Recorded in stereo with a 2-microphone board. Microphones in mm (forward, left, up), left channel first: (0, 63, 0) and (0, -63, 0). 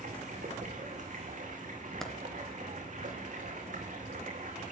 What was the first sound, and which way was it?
Running water, 85° right.